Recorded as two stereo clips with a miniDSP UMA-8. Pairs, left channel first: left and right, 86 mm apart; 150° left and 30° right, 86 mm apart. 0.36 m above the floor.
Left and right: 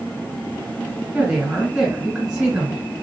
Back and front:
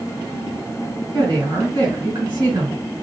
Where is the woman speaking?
20° right, 2.5 m.